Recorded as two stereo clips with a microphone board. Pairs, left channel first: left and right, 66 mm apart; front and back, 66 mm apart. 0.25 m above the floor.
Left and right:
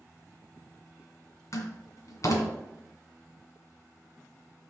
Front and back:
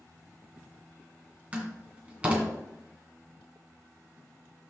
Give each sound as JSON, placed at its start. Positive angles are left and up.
{"t": 1.5, "sound": "a door slam", "azimuth_deg": 115, "distance_m": 2.0}